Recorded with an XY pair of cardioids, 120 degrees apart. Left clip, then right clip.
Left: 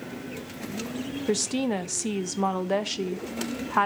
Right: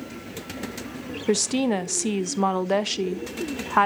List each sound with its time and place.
1.3 s a woman speaking: 25° right, 0.7 m